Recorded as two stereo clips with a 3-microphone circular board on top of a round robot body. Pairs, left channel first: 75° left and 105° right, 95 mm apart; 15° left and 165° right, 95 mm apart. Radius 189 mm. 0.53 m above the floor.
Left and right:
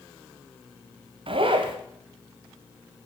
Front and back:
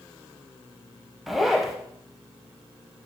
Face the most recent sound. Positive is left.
turn(degrees=-75)